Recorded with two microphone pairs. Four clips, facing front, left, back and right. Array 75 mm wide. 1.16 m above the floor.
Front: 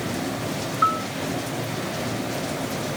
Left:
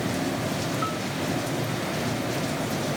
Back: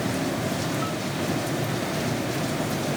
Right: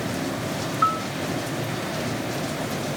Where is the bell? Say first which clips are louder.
Right 7 dB, front 8 dB; 40° right.